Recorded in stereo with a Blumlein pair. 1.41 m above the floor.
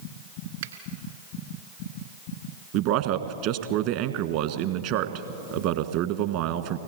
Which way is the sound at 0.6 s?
60° right.